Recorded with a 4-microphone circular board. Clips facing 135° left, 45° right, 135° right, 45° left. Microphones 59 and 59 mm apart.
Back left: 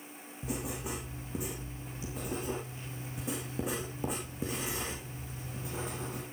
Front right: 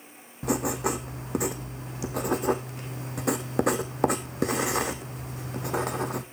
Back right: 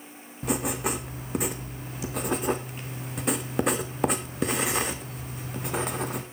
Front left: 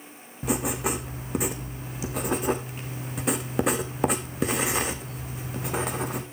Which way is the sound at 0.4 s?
45° right.